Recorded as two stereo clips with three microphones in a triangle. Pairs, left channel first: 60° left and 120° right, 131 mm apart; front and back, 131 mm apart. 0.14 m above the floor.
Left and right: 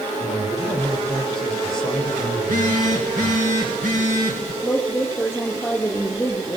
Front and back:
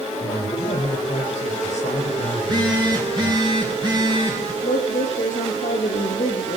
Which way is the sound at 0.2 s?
30° right.